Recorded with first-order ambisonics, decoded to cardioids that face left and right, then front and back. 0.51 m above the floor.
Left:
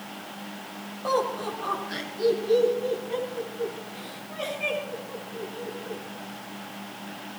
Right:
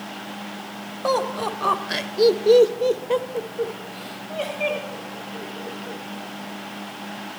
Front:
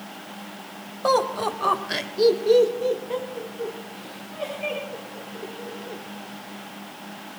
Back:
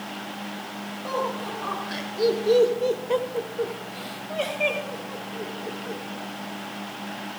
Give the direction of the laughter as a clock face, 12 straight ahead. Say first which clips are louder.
Right 3 dB, front 7 dB; 1 o'clock.